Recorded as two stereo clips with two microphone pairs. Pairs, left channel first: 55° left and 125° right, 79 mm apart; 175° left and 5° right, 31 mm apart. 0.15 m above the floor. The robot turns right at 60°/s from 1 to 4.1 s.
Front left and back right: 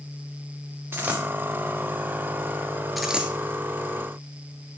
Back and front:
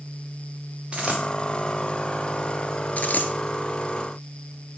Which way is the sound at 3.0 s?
145° left.